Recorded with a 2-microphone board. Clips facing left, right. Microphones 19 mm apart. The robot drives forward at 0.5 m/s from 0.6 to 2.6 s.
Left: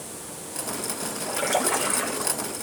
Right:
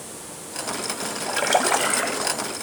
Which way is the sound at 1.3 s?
40° right (ahead or behind).